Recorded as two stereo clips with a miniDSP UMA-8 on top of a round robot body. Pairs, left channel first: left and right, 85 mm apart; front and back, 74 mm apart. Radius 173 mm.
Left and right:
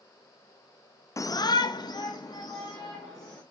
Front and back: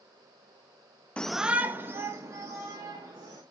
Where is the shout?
65° left, 0.6 m; by 3.4 s 135° left, 2.5 m.